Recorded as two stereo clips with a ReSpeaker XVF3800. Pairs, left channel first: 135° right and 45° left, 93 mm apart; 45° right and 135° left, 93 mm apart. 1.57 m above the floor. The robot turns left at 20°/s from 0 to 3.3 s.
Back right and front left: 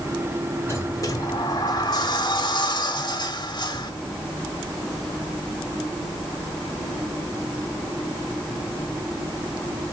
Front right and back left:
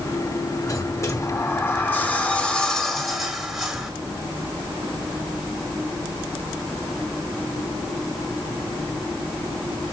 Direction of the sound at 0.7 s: 90° right.